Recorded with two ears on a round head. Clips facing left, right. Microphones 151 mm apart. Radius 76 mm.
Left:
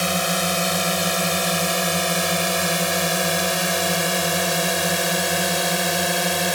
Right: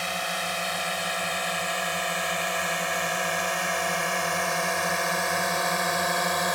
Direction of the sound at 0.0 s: 55° left (ahead or behind).